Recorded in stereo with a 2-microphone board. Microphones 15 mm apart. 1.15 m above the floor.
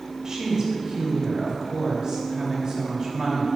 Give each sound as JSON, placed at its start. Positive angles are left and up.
{"t": 0.2, "sound": "a woman speaking", "side_deg": -45, "distance_m": 2.5}